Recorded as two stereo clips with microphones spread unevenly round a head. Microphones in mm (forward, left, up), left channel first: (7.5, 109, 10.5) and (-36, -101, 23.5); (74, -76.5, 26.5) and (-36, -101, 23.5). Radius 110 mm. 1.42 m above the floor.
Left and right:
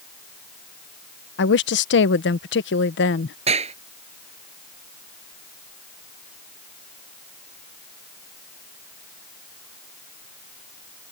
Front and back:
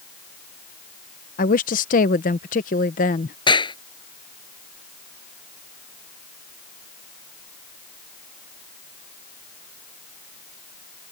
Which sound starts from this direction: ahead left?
A woman speaking, at 1.4 s.